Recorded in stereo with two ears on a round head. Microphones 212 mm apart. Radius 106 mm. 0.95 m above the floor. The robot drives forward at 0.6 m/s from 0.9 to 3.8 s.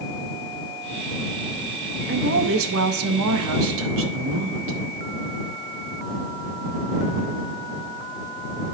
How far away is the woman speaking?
About 1.1 m.